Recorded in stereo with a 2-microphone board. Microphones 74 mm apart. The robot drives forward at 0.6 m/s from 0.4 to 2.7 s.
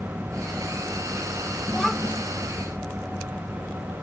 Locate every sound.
1.7 s a child speaking: 5° left (ahead or behind)